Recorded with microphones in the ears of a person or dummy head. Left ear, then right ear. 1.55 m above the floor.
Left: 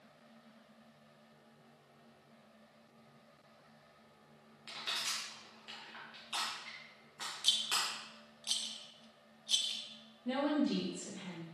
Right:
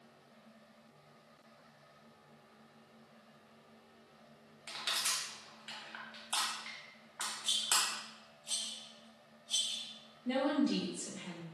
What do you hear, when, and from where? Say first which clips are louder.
4.7 s crushing: right 2 dB; 10° right (ahead or behind), 1.3 m
7.4 s a rattle: left 1 dB; 50° left (ahead or behind), 0.5 m
10.2 s a woman speaking: right 1 dB; 65° left (ahead or behind), 1.5 m